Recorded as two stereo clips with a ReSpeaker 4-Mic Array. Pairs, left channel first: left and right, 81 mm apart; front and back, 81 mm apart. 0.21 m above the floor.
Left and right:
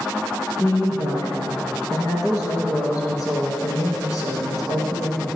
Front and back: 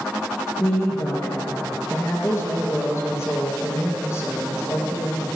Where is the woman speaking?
50° left, 3 m.